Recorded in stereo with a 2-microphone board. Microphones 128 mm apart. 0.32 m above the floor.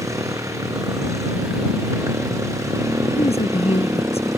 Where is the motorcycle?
25° right (ahead or behind).